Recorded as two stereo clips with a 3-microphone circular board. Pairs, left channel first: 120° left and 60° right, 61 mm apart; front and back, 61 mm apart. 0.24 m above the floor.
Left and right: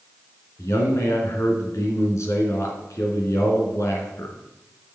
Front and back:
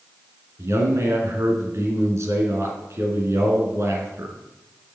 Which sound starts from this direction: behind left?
A man speaking, at 0.6 s.